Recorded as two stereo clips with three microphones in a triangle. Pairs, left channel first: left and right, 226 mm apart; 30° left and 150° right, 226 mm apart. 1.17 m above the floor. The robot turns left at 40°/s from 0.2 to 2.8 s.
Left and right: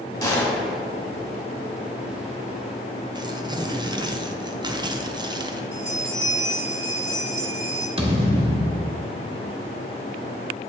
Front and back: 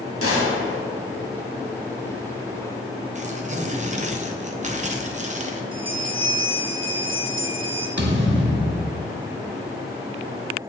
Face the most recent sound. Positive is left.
turn(degrees=-150)